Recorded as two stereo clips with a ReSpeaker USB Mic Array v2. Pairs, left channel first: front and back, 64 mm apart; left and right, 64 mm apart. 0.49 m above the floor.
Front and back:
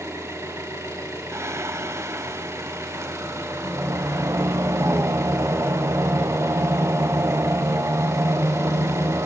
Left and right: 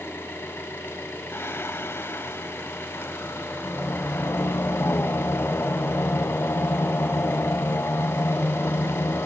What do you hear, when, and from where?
0.0 s an engine running: 145° left, 3 m
1.3 s singing: 140° left, 0.5 m